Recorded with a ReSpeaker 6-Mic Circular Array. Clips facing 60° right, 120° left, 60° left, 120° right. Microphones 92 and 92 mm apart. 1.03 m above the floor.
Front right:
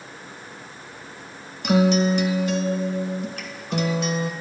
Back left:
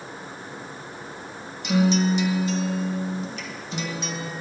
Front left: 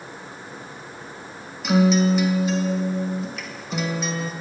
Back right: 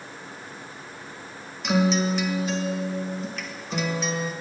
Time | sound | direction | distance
1.6 | a guitar | 25° right | 0.6 m